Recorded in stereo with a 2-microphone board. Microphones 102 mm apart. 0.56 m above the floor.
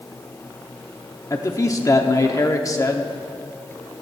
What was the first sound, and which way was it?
A man speaking, 30° left (ahead or behind).